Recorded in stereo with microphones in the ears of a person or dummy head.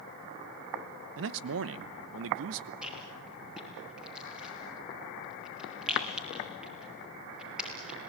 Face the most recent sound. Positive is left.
turn(degrees=-5)  # may be behind; listen again after turning